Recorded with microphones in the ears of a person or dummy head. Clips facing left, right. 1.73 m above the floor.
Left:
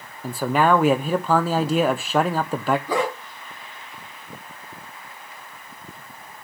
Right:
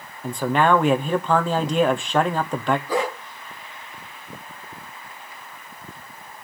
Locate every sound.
0.2 s a man speaking: 5° left (ahead or behind), 0.7 m
2.9 s a dog barking: 55° left (ahead or behind), 3.5 m